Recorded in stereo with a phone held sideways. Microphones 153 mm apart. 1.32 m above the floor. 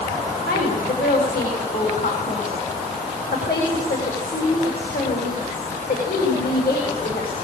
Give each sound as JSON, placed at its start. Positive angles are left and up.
{"t": 0.5, "sound": "a woman speaking", "side_deg": 90, "distance_m": 8.0}